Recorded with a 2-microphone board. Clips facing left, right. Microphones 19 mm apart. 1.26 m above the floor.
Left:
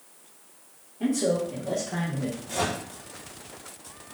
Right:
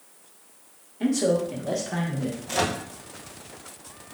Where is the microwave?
60° right (ahead or behind), 0.5 m.